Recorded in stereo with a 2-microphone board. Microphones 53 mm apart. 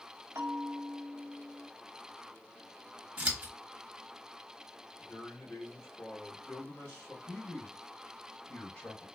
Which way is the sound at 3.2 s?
30° right (ahead or behind).